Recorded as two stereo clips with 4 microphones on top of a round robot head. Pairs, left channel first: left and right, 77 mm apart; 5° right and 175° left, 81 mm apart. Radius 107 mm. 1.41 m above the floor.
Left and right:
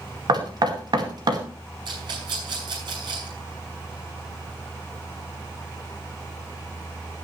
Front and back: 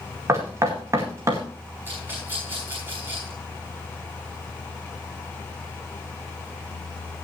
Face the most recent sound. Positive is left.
turn(degrees=-115)